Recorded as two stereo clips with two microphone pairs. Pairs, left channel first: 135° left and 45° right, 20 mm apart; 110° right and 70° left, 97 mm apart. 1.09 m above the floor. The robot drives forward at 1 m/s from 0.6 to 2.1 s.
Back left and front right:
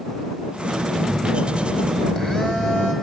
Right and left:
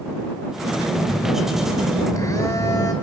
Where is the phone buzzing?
160° right, 2.5 m; by 2.9 s 170° right, 3.5 m.